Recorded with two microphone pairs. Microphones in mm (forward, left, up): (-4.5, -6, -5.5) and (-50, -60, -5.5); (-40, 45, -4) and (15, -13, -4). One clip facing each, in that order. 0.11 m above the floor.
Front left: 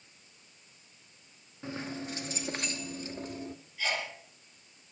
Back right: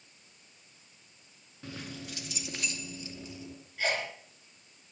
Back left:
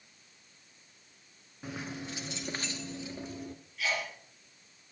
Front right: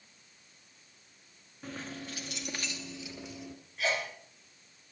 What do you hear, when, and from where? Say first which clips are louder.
1.6 s keys jangling: front left 5 dB, back left 2 dB; 75° left, 0.8 m; by 3.5 s 90° left, 1.5 m
3.8 s a sneeze: back right 2 dB, front right 2 dB; 100° right, 2.5 m